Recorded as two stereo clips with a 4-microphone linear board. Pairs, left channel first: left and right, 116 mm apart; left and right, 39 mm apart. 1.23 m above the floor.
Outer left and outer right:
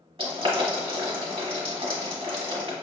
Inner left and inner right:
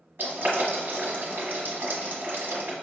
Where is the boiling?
50° right (ahead or behind), 1.4 m.